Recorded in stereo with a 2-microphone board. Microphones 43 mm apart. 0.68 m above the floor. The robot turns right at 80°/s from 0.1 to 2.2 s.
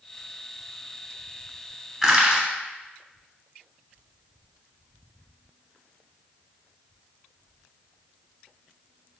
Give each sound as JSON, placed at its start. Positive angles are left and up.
{"t": 2.0, "sound": "crushing", "side_deg": -5, "distance_m": 0.8}